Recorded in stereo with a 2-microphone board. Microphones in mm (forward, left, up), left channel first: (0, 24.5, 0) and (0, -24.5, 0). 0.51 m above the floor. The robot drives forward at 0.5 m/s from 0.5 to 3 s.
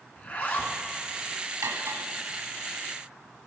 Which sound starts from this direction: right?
Cutlery clinking, at 1.6 s.